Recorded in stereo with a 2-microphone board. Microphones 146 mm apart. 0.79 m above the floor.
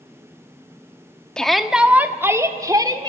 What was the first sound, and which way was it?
A shout, 5° left (ahead or behind).